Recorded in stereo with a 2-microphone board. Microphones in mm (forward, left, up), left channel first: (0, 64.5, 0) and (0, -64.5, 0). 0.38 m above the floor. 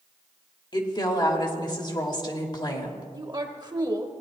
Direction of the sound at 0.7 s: 35° left (ahead or behind).